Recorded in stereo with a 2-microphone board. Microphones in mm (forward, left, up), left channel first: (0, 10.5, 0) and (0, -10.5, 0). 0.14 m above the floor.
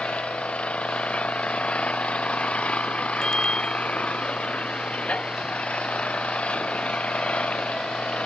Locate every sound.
0.0 s an engine running: 75° left (ahead or behind)
3.2 s a bicycle bell: 40° left (ahead or behind)